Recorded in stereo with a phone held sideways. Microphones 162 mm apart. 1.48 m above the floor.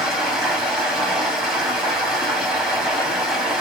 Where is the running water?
5° right (ahead or behind), 2.0 m.